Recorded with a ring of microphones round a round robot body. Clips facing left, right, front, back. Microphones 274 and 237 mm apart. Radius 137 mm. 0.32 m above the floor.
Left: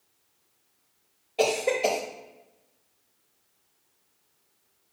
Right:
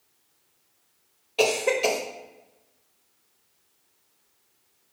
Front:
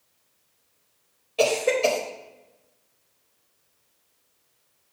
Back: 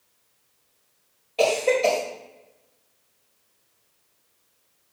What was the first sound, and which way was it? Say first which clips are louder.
A cough: right 2 dB, back 1 dB; 65° right.